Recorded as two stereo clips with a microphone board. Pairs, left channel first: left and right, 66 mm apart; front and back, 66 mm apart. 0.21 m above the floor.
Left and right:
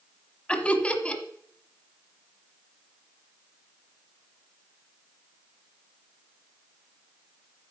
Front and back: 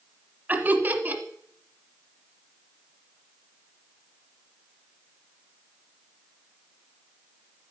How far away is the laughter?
About 1.1 m.